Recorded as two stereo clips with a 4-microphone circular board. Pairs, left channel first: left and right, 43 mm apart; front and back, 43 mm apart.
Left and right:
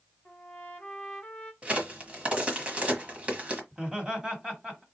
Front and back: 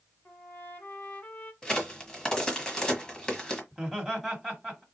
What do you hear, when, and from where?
0.2 s a trumpet: 35° left, 1.2 m
1.6 s a crack: 60° right, 1.3 m
3.7 s laughter: 80° right, 1.6 m